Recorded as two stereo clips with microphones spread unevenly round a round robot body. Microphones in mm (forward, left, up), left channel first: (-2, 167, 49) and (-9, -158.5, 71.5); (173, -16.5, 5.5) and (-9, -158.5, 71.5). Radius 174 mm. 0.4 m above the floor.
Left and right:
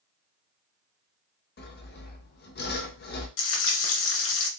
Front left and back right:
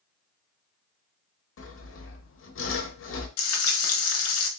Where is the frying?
40° left, 0.9 m.